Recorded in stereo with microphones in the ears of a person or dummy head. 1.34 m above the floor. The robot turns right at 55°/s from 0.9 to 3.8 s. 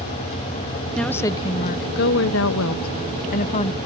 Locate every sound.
0.9 s a woman speaking: straight ahead; by 3.8 s 155° left